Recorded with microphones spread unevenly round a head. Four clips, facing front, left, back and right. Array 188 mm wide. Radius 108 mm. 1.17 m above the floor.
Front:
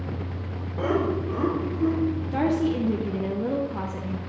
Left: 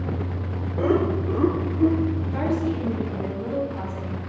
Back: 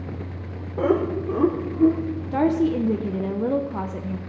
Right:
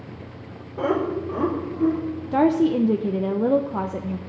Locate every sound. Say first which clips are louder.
0.8 s laughter: left 1 dB, back 3 dB; 170° left, 4 m; by 2.0 s 160° left, 3 m
2.3 s a woman speaking: right 11 dB, back 6 dB; 130° right, 0.8 m